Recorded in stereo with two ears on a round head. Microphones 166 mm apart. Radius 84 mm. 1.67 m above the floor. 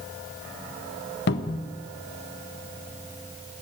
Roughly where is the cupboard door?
Left.